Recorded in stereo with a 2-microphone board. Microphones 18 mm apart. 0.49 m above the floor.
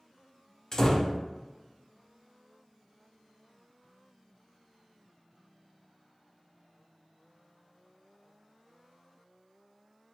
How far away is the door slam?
About 0.7 m.